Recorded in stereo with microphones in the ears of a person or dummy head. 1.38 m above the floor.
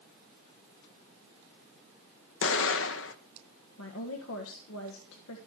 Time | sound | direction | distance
2.4 | an explosion | 60° left (ahead or behind) | 0.9 m
3.8 | a woman speaking | 75° left (ahead or behind) | 1.5 m